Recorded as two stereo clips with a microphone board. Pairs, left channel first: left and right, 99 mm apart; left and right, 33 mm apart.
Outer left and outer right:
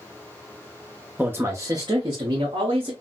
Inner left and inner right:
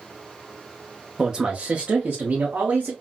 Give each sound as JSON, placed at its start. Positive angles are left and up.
{"t": 1.2, "sound": "a man speaking", "side_deg": -15, "distance_m": 0.7}